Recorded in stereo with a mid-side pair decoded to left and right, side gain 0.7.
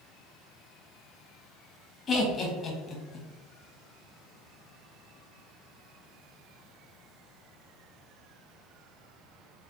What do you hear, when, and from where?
2.1 s laughter: 30° left, 1.2 m